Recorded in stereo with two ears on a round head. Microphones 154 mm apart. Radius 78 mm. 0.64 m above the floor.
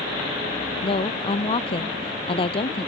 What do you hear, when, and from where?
0.8 s a woman speaking: 30° left (ahead or behind)